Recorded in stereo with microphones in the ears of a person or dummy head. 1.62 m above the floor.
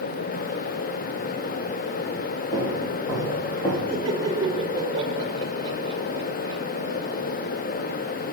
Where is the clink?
I don't hear a clink.